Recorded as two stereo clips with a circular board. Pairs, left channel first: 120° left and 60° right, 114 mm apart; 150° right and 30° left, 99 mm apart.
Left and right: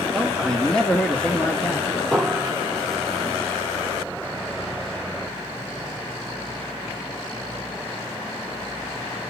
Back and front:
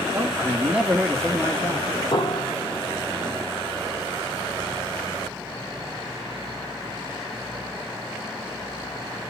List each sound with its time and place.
0.1 s a man speaking: 30° left, 1.4 m; by 1.9 s straight behind, 1.3 m
2.1 s a piano: 155° right, 1.6 m